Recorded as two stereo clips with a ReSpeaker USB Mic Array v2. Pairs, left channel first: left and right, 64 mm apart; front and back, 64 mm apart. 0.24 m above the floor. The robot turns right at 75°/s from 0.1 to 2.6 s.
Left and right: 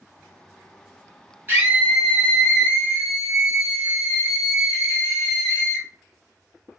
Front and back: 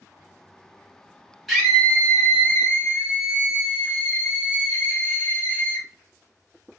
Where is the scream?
90° right, 1.6 m; by 5.9 s 10° right, 1.6 m.